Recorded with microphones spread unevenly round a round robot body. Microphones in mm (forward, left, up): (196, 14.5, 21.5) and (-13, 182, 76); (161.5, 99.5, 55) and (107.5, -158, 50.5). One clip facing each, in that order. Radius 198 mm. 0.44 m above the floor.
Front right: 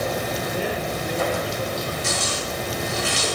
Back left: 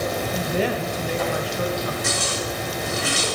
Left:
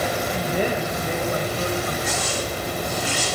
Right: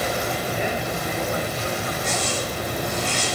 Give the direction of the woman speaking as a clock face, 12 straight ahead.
8 o'clock.